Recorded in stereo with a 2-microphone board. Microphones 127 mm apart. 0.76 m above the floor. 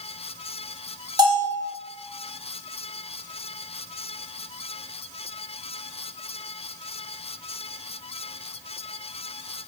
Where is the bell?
35° right (ahead or behind), 1.2 m.